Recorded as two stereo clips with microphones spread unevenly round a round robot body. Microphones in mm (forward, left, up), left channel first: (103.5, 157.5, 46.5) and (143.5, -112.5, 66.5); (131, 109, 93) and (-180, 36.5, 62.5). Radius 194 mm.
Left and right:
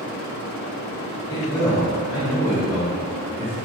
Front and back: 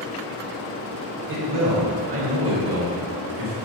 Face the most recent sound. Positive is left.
turn(degrees=-155)